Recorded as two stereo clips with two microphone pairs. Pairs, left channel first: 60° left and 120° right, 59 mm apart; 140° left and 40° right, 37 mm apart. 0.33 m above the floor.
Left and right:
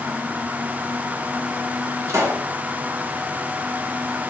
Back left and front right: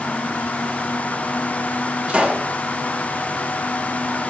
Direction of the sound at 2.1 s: 100° right.